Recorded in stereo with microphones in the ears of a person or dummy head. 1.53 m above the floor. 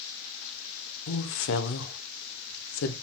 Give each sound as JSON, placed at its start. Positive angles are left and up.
{"t": 1.1, "sound": "a woman speaking", "side_deg": 70, "distance_m": 1.0}